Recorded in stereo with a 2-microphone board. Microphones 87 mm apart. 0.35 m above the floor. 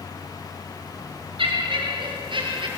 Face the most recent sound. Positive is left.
turn(degrees=-60)  # may be behind; listen again after turning